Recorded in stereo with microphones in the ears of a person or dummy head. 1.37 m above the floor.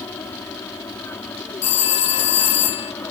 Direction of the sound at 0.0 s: 10° left (ahead or behind).